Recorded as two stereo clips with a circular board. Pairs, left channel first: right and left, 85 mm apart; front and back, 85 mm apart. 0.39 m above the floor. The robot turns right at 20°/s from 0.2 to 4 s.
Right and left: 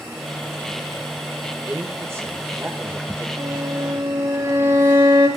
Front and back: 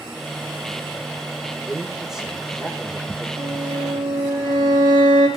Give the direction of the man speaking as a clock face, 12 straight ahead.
9 o'clock.